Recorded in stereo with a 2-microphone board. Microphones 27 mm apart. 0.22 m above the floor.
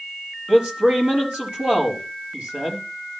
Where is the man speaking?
70° right (ahead or behind), 5 m.